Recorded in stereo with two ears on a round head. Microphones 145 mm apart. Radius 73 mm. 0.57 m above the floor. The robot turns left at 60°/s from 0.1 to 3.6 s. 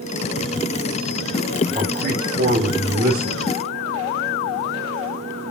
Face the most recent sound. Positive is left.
turn(degrees=-155)